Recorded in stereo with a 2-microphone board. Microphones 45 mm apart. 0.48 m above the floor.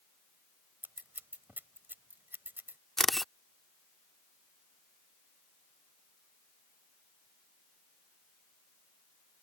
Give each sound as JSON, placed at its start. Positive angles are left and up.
{"t": 0.8, "sound": "scissors", "side_deg": -50}
{"t": 3.0, "sound": "a camera shutter", "side_deg": 5}